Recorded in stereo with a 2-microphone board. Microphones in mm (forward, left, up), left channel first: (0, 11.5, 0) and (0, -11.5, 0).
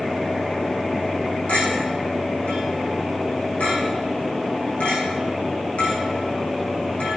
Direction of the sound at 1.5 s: 75° left (ahead or behind).